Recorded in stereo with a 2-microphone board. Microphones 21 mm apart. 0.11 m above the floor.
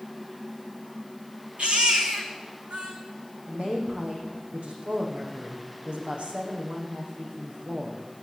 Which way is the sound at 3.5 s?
70° right (ahead or behind).